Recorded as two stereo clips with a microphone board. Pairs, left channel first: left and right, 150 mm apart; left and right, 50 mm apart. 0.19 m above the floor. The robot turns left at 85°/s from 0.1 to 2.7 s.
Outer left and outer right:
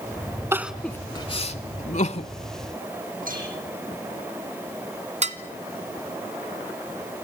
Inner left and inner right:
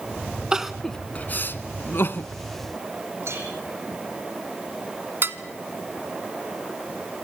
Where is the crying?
15° right (ahead or behind), 0.8 m; by 2.3 s 40° left (ahead or behind), 0.8 m.